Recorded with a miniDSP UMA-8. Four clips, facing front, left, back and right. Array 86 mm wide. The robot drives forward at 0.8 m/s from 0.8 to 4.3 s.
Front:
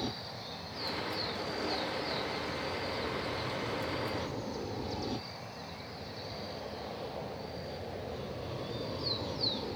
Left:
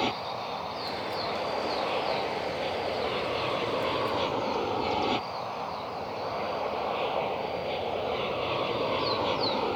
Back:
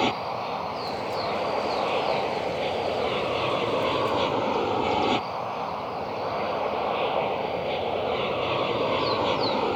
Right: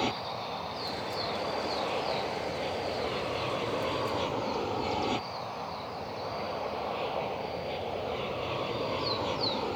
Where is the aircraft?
175° left; by 9.8 s 165° left.